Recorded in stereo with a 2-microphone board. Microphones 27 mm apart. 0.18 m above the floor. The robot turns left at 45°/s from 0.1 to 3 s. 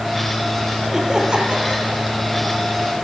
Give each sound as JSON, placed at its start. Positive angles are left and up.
{"t": 0.9, "sound": "laughter", "azimuth_deg": -10, "distance_m": 6.0}